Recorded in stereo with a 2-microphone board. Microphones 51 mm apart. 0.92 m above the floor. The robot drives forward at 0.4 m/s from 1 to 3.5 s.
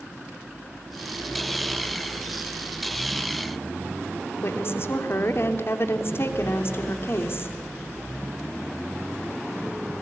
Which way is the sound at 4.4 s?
50° left (ahead or behind).